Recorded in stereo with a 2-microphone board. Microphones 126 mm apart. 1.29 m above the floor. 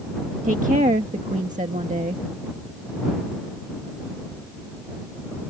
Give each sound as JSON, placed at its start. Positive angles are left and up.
{"t": 0.4, "sound": "a woman speaking", "side_deg": -85}